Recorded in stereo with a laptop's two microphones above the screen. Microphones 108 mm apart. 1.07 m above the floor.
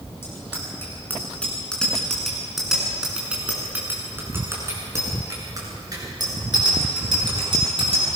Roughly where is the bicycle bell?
Left.